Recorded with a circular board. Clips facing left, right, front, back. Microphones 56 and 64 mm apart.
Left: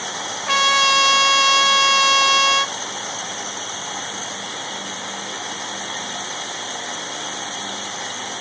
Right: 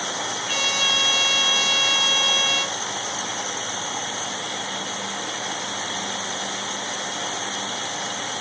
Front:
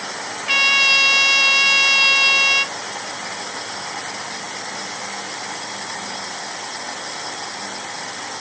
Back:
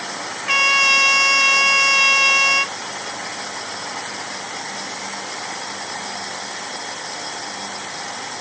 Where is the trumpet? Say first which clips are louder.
Left 10 dB, back 1 dB; 105° left, 0.7 m.